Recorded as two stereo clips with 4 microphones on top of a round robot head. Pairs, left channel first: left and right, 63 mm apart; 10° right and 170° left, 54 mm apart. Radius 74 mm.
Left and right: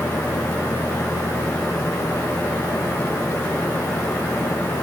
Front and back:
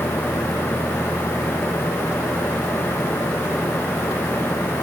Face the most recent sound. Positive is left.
No sound to turn to.